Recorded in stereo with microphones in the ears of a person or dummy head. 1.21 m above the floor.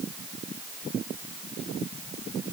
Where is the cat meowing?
I don't hear a cat meowing.